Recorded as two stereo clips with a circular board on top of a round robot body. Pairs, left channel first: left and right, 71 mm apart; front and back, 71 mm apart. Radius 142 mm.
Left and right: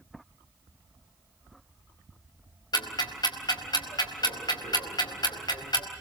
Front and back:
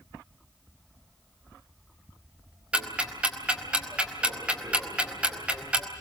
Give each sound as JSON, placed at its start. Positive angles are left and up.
{"t": 2.7, "sound": "ticking", "azimuth_deg": 105, "distance_m": 4.5}